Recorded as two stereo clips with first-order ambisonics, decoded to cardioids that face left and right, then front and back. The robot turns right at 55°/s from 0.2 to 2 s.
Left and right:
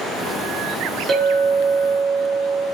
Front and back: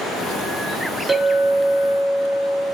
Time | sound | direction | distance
1.1 | a clink | 130° right | 0.9 m